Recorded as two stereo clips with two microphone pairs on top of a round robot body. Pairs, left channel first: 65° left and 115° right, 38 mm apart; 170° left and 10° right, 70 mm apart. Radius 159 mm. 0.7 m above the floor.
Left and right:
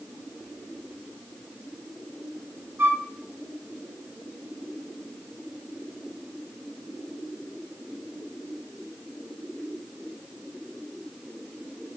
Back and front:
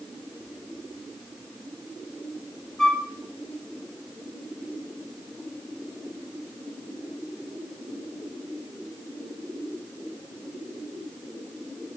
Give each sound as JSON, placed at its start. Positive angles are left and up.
{"t": 2.8, "sound": "a flute", "azimuth_deg": -105, "distance_m": 1.7}